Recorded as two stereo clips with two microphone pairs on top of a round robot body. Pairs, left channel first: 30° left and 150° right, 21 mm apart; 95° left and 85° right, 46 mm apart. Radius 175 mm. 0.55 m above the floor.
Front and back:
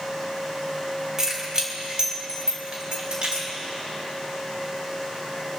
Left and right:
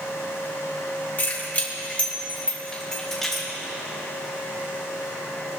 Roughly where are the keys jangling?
Behind left.